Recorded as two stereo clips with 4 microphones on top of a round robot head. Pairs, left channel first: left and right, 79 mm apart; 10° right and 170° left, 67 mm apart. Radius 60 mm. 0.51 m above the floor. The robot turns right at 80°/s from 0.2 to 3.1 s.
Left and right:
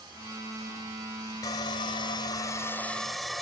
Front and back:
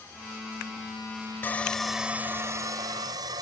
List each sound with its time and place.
1.4 s sawing: 45° left; by 3.4 s straight behind